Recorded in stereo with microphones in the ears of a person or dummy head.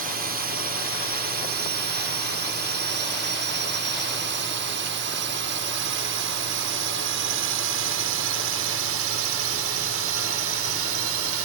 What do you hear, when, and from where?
0.0 s a drone: 50° right (ahead or behind); by 11.4 s 75° right (ahead or behind)